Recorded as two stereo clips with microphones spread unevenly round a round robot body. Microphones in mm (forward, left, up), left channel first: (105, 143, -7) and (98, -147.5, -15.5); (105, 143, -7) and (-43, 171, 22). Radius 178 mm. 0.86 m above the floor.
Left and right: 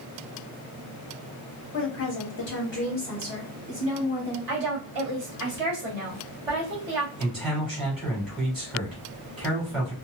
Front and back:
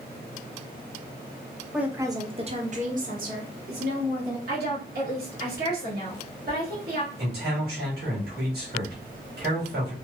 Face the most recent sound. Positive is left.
turn(degrees=180)